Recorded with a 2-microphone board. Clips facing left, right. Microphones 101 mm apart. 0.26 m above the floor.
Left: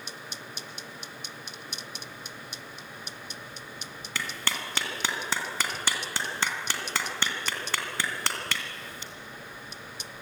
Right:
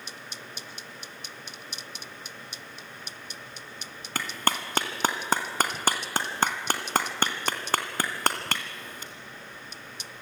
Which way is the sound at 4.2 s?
50° right (ahead or behind).